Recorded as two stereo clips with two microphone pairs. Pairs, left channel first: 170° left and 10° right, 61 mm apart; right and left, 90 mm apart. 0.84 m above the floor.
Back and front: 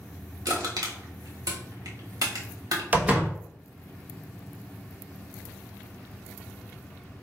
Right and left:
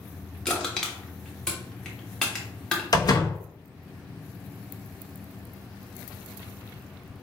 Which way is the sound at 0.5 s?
10° right.